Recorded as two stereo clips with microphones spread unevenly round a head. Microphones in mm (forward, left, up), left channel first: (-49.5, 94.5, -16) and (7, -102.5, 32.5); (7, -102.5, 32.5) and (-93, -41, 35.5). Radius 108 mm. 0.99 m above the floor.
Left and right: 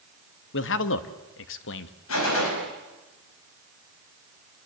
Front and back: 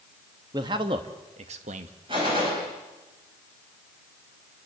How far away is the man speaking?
About 1.3 m.